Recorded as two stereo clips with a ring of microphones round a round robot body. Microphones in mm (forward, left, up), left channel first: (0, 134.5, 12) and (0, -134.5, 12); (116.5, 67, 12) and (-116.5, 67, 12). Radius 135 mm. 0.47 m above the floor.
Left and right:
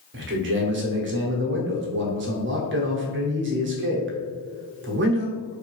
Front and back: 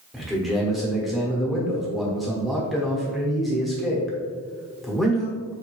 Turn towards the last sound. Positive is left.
turn(degrees=-90)